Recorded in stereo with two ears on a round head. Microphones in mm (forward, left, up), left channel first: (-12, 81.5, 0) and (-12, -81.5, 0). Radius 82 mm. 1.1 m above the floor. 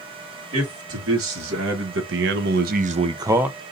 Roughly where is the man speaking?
Right.